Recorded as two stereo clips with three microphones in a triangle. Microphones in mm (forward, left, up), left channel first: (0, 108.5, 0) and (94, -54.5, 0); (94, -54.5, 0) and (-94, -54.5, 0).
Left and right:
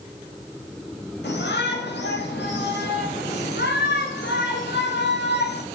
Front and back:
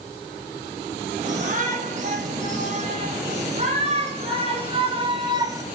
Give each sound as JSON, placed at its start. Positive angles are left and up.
{"t": 1.2, "sound": "a shout", "azimuth_deg": 135, "distance_m": 5.5}